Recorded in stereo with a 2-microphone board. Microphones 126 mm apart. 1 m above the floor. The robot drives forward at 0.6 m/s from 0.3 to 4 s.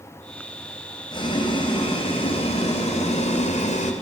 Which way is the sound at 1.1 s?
40° left (ahead or behind).